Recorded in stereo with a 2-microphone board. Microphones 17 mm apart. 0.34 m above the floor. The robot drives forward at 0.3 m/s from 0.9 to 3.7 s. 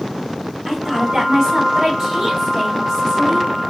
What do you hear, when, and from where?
0.7 s a woman speaking: 40° right (ahead or behind), 1.8 m